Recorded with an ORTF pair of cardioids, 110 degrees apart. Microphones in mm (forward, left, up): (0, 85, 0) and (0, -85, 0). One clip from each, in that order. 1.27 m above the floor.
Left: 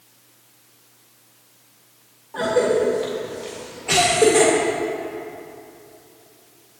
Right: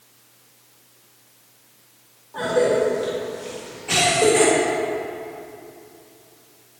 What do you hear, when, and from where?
2.3 s a cough: 25° left, 1.8 m